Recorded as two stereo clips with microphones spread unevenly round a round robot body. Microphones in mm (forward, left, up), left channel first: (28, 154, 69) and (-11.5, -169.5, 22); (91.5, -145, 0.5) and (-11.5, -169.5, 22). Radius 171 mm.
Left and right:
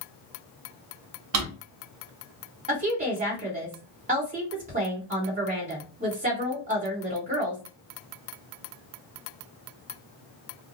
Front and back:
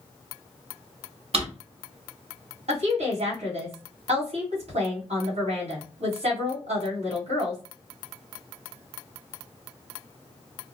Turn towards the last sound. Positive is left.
turn(degrees=-155)